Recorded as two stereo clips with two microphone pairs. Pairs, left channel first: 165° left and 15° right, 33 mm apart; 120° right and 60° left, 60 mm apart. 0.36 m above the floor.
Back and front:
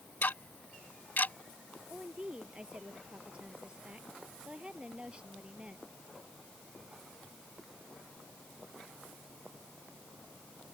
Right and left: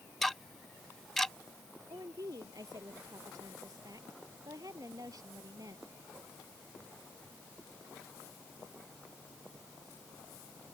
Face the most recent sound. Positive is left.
turn(degrees=50)